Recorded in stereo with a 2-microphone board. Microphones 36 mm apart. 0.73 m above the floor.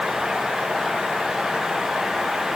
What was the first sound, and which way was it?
Only background noise.